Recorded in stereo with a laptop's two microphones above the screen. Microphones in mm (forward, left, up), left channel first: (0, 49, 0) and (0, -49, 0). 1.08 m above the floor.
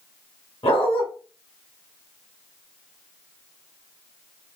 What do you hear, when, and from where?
0.6 s a dog barking: 75° left (ahead or behind), 2 m